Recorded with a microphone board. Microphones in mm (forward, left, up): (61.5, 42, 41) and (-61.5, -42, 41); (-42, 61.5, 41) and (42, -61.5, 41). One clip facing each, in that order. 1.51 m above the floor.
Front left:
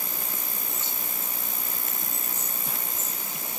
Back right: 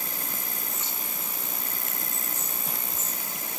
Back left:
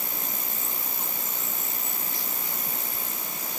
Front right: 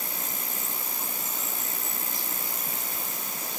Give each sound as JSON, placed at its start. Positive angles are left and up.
{"t": 0.0, "sound": "an insect", "azimuth_deg": -150}